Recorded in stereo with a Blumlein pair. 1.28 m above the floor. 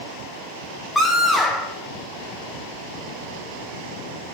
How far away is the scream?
About 0.7 m.